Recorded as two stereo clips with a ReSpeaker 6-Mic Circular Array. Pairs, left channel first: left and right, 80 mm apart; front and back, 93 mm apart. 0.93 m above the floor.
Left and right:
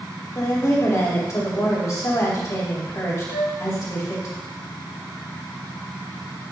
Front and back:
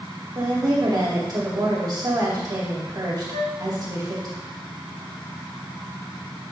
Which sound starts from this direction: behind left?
A woman speaking, at 0.3 s.